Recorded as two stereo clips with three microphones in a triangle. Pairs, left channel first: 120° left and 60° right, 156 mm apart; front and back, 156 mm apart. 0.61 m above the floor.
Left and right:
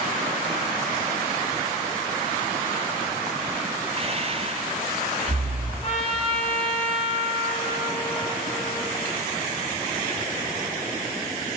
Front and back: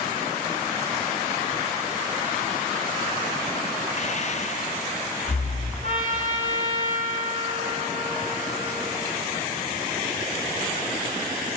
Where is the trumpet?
165° left, 1.6 m.